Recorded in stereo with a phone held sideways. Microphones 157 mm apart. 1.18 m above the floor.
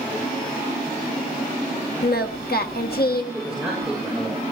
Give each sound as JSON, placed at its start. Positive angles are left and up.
{"t": 2.0, "sound": "singing", "side_deg": 80, "distance_m": 1.4}
{"t": 3.3, "sound": "a man speaking", "side_deg": -5, "distance_m": 5.5}